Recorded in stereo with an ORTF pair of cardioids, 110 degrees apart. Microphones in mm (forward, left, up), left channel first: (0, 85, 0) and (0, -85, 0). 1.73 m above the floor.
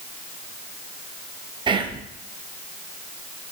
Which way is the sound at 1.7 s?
30° right.